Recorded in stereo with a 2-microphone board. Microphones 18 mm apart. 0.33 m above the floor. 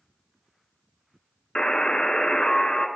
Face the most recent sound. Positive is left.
turn(degrees=60)  # may be behind; listen again after turning